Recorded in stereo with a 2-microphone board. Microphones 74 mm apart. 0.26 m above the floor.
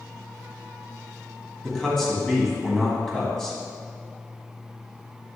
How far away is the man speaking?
About 1.8 m.